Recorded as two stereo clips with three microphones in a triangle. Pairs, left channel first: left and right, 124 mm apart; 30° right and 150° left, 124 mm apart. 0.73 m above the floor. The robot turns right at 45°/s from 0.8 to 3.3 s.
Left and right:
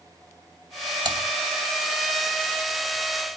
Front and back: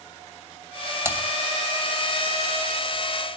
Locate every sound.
1.1 s typing on a keyboard: 140° right, 2.5 m; by 1.2 s 135° right, 2.5 m